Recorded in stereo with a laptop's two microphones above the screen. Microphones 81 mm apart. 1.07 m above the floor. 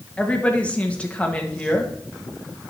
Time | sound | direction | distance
0.2 | a woman speaking | 15° left (ahead or behind) | 1.4 m